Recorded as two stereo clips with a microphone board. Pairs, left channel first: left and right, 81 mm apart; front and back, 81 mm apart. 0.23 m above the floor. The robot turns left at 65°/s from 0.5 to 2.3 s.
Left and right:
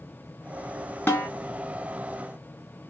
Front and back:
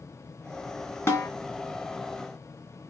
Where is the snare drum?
40° left, 1.5 m; by 1.3 s 25° left, 1.5 m.